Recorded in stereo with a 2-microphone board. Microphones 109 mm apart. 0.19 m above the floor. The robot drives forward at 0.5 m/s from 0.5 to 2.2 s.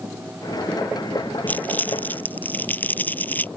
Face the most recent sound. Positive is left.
turn(degrees=15)  # may be behind; listen again after turning